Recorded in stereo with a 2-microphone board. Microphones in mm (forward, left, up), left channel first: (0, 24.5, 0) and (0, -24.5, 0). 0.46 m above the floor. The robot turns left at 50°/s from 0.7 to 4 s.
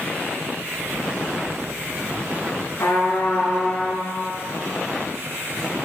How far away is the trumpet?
About 1.8 m.